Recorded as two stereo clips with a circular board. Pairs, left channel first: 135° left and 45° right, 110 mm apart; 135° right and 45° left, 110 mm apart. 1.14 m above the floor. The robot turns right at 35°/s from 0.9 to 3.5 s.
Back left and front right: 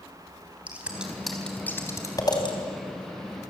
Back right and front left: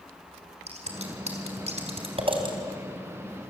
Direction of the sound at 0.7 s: 30° left.